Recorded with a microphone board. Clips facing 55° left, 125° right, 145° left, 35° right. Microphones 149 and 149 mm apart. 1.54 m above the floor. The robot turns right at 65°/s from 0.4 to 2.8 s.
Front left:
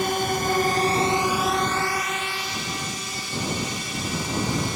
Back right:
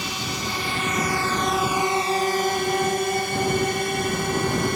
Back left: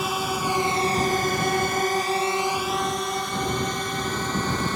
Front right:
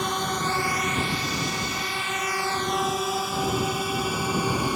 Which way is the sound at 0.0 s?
60° left.